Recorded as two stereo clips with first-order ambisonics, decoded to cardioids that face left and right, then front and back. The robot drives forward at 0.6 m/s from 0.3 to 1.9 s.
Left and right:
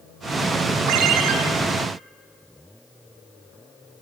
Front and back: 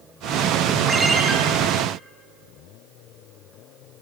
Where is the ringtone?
95° right, 3 m; by 1.3 s 100° right, 3 m.